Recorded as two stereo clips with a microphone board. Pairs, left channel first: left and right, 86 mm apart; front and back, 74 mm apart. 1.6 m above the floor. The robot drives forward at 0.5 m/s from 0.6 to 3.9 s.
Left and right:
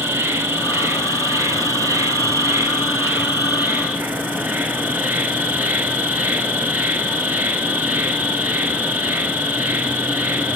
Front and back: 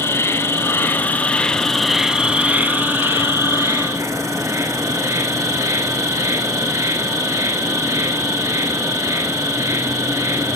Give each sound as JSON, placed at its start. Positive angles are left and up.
{"t": 0.0, "sound": "an insect", "azimuth_deg": -40, "distance_m": 1.0}